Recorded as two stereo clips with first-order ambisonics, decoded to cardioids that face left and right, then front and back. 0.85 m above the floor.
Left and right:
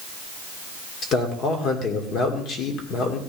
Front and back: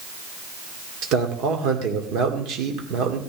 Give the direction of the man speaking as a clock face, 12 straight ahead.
7 o'clock.